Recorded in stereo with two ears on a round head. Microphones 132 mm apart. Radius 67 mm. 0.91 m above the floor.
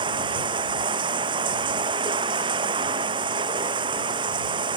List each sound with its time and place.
0.0 s running water: 30° right (ahead or behind)